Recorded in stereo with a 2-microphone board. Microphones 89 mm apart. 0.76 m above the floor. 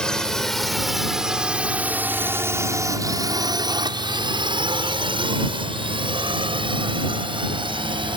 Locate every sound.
0.0 s a drone: 10° left (ahead or behind); by 8.2 s 60° right (ahead or behind)